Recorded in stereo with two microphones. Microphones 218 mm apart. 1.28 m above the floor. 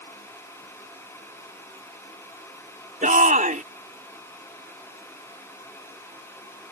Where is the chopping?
I don't hear chopping.